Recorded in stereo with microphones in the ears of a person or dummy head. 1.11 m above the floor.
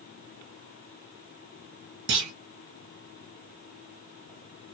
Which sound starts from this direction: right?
A clunk, at 2.1 s.